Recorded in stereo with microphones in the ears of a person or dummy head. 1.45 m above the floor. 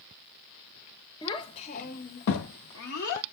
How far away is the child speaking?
About 0.7 m.